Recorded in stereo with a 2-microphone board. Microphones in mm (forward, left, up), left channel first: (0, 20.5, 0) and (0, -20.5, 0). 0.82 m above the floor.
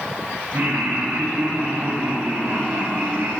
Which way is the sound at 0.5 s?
65° right (ahead or behind).